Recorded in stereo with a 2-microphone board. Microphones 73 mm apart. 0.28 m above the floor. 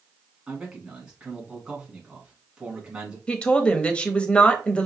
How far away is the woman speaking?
About 0.9 m.